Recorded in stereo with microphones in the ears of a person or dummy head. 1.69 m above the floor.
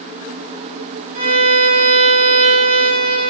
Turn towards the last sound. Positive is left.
turn(degrees=-40)  # may be behind; listen again after turning